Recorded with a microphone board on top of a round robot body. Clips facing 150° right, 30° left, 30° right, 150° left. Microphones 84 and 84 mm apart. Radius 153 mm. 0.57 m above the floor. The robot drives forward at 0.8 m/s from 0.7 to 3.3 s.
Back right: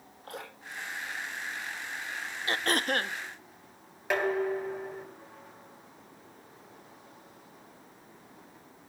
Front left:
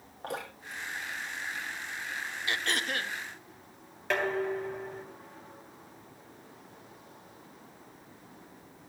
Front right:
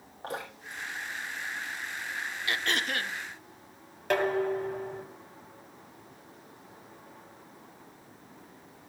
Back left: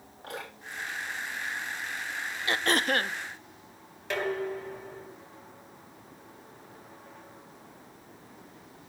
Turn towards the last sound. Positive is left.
turn(degrees=-70)